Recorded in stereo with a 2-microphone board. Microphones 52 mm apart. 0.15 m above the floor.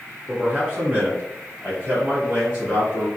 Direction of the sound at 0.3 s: 10° right (ahead or behind).